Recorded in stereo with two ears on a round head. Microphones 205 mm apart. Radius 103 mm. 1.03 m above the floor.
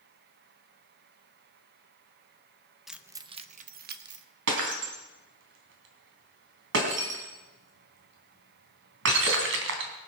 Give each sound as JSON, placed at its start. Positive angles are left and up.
{"t": 2.9, "sound": "keys jangling", "side_deg": 0, "distance_m": 0.7}
{"t": 4.5, "sound": "breaking glass", "side_deg": -60, "distance_m": 3.5}